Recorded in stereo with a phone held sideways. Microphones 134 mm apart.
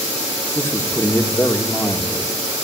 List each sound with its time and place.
0.6 s a man speaking: 20° left (ahead or behind), 2.0 m